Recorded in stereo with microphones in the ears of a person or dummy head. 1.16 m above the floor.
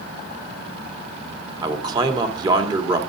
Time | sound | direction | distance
1.6 | a man speaking | 25° right (ahead or behind) | 2.5 m